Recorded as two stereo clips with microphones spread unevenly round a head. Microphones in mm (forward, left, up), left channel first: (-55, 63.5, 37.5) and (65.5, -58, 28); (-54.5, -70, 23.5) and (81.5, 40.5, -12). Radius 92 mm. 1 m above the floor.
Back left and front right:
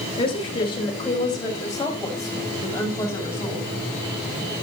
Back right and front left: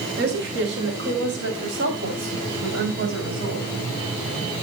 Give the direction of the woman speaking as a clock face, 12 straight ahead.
10 o'clock.